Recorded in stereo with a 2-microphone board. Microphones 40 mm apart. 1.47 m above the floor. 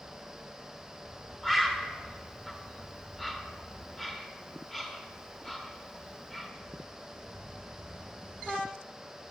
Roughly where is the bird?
Centre.